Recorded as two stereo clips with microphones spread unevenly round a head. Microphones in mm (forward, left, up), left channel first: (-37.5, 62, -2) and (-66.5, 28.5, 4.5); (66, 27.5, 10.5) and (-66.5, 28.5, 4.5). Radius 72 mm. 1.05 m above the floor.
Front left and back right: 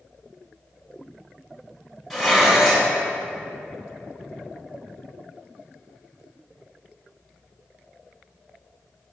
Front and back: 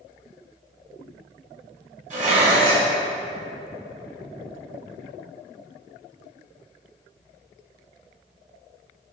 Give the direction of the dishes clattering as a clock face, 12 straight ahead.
7 o'clock.